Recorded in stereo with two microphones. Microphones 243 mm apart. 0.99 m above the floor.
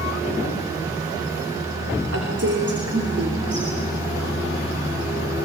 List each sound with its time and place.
2.1 s a woman speaking: 80° right, 3 m